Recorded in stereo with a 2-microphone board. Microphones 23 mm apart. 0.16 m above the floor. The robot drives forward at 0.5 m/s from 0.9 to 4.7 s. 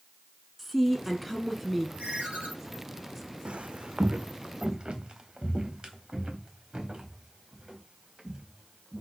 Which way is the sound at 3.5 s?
55° right (ahead or behind).